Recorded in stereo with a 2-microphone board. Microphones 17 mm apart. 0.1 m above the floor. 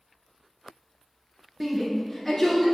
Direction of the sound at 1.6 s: 10° right (ahead or behind).